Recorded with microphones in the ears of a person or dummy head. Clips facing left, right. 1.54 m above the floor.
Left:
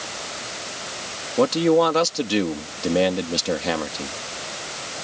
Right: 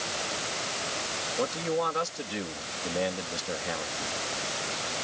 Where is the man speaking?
85° left.